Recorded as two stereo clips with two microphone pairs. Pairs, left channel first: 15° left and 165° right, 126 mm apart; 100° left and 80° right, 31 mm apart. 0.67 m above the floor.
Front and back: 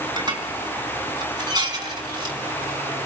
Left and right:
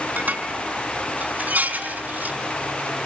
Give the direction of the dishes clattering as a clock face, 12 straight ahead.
4 o'clock.